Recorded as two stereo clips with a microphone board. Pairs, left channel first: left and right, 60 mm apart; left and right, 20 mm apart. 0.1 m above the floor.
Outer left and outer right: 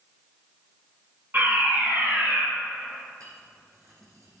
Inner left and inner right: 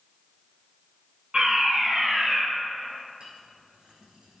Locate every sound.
1.3 s a fire alarm: 45° right (ahead or behind), 5 m
3.2 s a clink: 75° right (ahead or behind), 4.5 m